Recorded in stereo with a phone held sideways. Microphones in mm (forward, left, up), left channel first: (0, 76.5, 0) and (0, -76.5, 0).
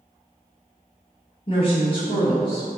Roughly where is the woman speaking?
Left.